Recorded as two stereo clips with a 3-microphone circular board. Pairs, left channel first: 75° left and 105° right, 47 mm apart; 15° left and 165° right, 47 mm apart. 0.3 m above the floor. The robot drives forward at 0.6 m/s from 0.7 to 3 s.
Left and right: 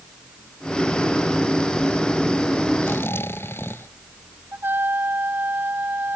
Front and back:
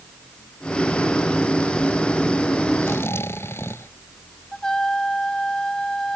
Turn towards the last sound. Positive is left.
turn(degrees=-65)